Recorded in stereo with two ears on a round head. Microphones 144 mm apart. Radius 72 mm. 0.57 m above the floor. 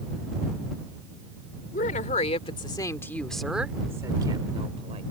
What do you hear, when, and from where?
1.7 s a woman speaking: 55° left (ahead or behind); by 5.0 s 40° right (ahead or behind)